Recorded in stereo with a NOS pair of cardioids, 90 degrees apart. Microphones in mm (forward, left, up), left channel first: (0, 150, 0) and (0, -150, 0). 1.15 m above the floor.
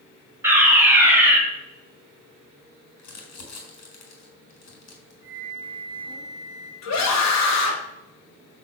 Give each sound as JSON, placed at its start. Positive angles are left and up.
{"t": 0.4, "sound": "a fire alarm", "azimuth_deg": -10, "distance_m": 5.5}
{"t": 3.0, "sound": "crumpling", "azimuth_deg": 65, "distance_m": 4.5}
{"t": 5.2, "sound": "a flute", "azimuth_deg": 65, "distance_m": 1.8}
{"t": 6.8, "sound": "a scream", "azimuth_deg": 65, "distance_m": 3.0}